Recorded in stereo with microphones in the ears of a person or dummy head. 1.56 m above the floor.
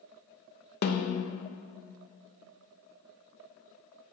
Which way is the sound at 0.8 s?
55° left (ahead or behind).